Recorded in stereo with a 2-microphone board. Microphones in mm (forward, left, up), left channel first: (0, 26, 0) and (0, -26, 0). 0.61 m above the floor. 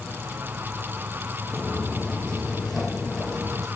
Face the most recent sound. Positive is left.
turn(degrees=5)  # may be behind; listen again after turning